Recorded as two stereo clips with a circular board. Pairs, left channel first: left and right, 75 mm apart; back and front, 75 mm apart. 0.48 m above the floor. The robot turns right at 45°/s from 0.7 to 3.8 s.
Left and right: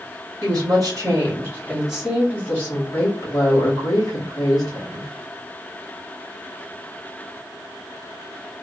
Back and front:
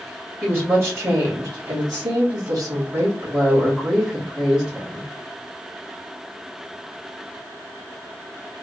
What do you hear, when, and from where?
0.4 s a woman speaking: 60° right, 2.5 m; by 5.1 s 75° left, 2.5 m